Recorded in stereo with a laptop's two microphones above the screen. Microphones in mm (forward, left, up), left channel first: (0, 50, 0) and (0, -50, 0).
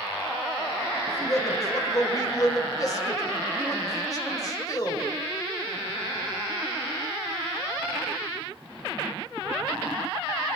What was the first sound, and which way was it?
A man speaking, 35° left (ahead or behind).